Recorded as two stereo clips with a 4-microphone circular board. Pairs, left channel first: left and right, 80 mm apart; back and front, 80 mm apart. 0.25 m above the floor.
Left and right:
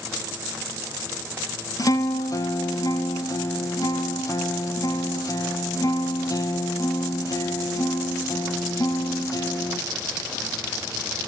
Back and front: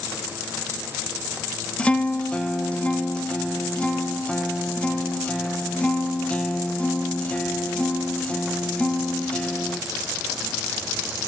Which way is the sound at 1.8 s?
110° left.